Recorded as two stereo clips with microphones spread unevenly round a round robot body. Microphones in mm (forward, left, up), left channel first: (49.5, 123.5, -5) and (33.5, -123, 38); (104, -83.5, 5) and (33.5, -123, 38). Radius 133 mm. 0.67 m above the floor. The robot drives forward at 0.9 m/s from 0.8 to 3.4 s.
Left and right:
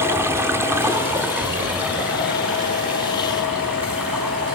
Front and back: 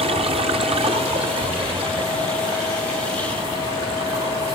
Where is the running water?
175° right, 0.8 m; by 4.5 s straight behind, 3 m.